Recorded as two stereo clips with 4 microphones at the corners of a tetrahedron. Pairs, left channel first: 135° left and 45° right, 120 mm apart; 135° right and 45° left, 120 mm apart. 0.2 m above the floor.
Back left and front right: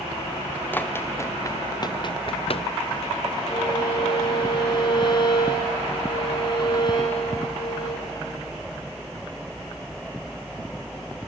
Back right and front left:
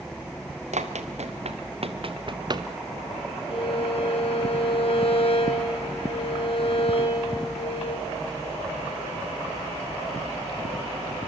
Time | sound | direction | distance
0.7 | running footsteps | 60° left | 2 m
3.5 | a violin | 175° right | 4.5 m